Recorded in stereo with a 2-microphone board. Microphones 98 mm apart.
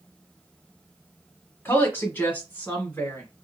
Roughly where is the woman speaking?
Left.